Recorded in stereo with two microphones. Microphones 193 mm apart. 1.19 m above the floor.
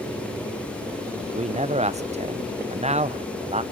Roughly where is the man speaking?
Right.